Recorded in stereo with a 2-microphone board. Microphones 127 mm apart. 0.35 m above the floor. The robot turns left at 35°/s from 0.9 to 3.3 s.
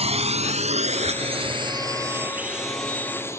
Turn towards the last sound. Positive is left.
turn(degrees=20)  # may be behind; listen again after turning